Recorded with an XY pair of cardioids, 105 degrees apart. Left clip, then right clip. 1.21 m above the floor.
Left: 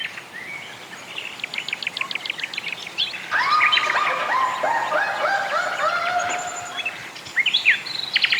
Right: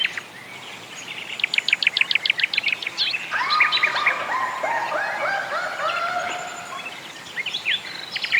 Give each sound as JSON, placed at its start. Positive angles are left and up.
{"t": 3.3, "sound": "laughter", "azimuth_deg": 15, "distance_m": 2.5}